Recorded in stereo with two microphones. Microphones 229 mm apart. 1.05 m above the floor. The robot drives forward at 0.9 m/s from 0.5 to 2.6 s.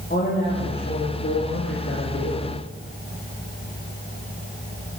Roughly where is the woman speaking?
Left.